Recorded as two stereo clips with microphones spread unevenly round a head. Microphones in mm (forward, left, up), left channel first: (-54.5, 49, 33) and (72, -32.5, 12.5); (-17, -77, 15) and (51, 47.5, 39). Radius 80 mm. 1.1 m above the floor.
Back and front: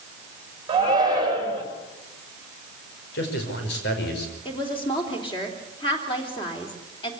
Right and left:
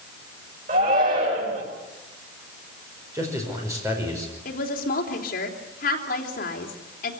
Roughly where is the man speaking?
Behind left.